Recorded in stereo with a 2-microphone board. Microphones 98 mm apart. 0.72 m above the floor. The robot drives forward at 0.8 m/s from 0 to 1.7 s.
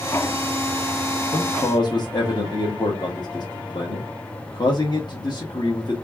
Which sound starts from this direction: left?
A man speaking, at 1.3 s.